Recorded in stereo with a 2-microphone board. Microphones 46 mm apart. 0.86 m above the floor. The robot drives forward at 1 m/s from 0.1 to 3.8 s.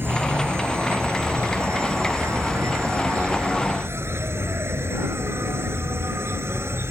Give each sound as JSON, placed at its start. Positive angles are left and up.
{"t": 0.0, "sound": "an insect", "side_deg": -50}